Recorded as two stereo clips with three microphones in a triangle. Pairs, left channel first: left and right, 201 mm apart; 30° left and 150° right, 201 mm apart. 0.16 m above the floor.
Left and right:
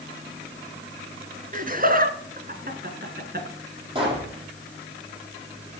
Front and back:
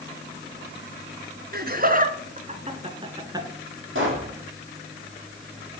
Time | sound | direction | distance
1.5 | laughter | 125° right | 1.9 m
4.0 | a pop | 155° right | 6 m